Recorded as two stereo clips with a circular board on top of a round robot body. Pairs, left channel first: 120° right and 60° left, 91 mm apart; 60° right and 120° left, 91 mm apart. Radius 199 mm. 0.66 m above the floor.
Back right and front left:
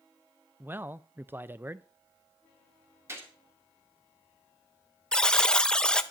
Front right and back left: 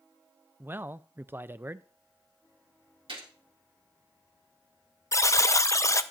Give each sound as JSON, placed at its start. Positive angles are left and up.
{"t": 0.6, "sound": "a man speaking", "azimuth_deg": 90, "distance_m": 0.6}
{"t": 3.1, "sound": "a gunshot", "azimuth_deg": 120, "distance_m": 2.5}
{"t": 5.1, "sound": "a buzzer", "azimuth_deg": -45, "distance_m": 0.8}